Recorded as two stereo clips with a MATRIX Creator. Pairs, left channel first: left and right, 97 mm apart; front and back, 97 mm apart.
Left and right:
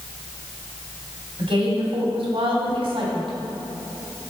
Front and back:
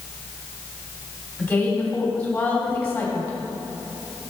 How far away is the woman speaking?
About 2.5 m.